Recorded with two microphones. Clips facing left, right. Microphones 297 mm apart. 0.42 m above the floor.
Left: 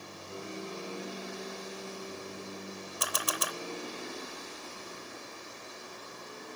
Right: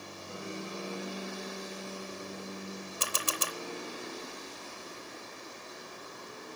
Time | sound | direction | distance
0.3 | a piano | 70° right (ahead or behind) | 8.5 m
3.0 | a camera shutter | 30° right (ahead or behind) | 0.7 m